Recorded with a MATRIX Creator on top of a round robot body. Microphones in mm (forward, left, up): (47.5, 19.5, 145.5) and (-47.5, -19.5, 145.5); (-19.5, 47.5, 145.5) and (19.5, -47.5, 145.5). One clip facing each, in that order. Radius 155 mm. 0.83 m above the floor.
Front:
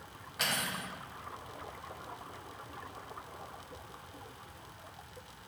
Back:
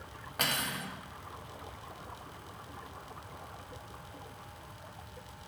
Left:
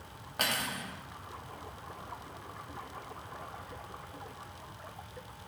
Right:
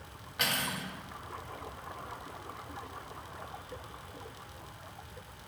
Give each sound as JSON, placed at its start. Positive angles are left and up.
{"t": 0.4, "sound": "cutlery clinking", "azimuth_deg": 165, "distance_m": 1.0}